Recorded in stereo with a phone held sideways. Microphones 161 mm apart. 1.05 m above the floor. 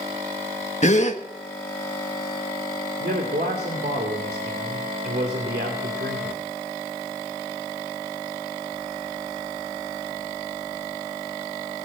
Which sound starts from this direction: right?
A man speaking, at 3.0 s.